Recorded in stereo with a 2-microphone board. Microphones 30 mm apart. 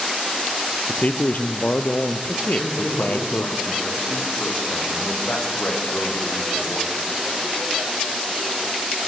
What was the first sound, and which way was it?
A man speaking, 55° left (ahead or behind).